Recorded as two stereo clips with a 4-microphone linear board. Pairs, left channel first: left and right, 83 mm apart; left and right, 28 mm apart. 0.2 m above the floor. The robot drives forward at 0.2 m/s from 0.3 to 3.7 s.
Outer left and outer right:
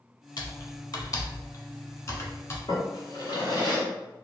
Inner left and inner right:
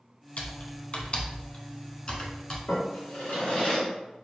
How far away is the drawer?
About 1.4 m.